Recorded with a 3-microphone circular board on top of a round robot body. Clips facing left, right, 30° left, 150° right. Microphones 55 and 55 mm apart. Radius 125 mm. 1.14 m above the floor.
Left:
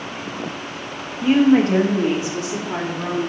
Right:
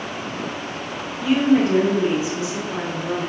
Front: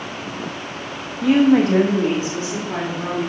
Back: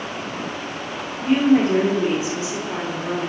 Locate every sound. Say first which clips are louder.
1.2 s a woman speaking: left 3 dB, front 2 dB; 35° left, 1.6 m; by 3.2 s 95° left, 3 m